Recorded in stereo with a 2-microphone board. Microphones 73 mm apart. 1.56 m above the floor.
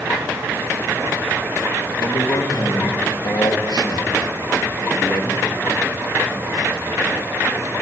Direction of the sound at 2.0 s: 85° left.